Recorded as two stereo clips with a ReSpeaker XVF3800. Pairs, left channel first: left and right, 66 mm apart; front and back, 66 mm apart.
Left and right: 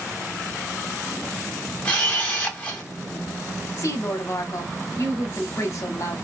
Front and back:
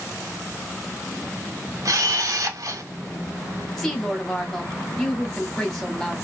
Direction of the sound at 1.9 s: 160° left.